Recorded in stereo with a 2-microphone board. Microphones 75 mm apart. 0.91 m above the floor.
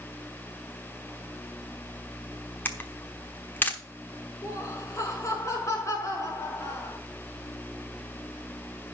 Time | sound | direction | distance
2.6 | a camera shutter | 25° left (ahead or behind) | 1.0 m
4.4 | laughter | 45° left (ahead or behind) | 4.5 m